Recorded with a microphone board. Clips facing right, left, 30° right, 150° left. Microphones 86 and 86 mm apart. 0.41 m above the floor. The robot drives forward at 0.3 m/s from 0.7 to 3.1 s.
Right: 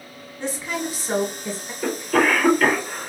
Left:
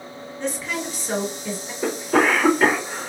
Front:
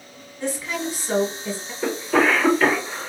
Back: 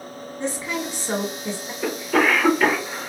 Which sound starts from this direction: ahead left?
A cough, at 1.8 s.